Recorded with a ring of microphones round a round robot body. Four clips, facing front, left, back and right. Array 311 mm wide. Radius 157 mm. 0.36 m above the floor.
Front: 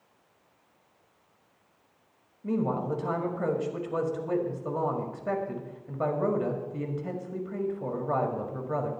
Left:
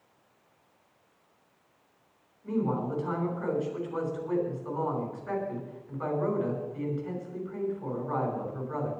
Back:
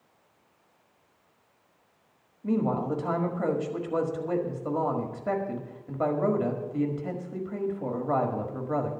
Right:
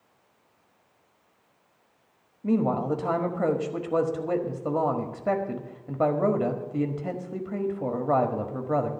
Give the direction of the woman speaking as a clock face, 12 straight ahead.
3 o'clock.